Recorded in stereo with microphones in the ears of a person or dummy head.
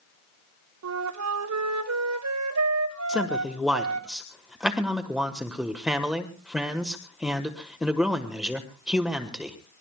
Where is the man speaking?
5° right (ahead or behind), 1.2 m.